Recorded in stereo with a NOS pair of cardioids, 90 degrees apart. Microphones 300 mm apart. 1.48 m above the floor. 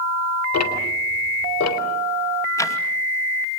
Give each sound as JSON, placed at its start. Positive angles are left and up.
{"t": 0.5, "sound": "ticking", "azimuth_deg": 65, "distance_m": 3.5}
{"t": 2.6, "sound": "ticking", "azimuth_deg": 10, "distance_m": 2.5}